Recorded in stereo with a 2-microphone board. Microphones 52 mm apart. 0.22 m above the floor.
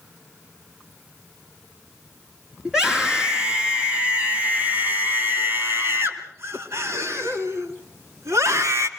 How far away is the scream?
About 4 m.